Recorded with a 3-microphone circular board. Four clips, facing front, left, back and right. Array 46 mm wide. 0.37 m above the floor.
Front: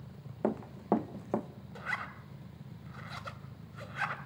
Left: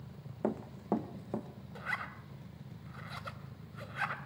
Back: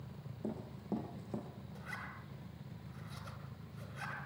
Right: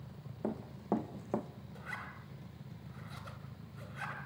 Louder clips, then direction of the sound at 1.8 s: Left 6 dB, front 10 dB; 40° left.